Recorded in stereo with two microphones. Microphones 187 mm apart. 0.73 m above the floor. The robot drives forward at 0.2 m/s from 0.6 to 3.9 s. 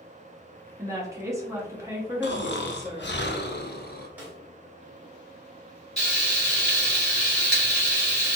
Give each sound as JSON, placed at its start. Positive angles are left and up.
{"t": 0.8, "sound": "a woman speaking", "side_deg": -15, "distance_m": 0.9}
{"t": 2.2, "sound": "snoring", "side_deg": 75, "distance_m": 0.5}
{"t": 4.2, "sound": "a snare drum", "side_deg": -10, "distance_m": 1.3}
{"t": 6.0, "sound": "frying", "side_deg": 5, "distance_m": 1.9}